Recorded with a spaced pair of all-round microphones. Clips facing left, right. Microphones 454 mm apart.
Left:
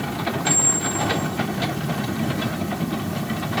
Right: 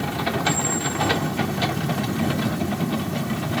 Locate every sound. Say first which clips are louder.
0.5 s a squeak: right 1 dB; 20° right (ahead or behind), 2.5 m